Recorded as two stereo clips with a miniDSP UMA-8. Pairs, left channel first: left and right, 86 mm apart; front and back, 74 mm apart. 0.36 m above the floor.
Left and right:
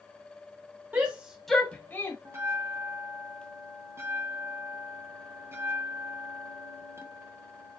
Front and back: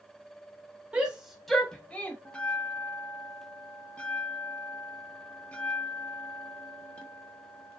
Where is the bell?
60° right, 0.8 m.